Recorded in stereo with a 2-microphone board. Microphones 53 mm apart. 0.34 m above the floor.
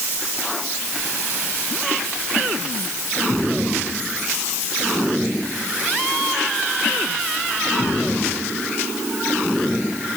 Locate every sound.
Only background noise.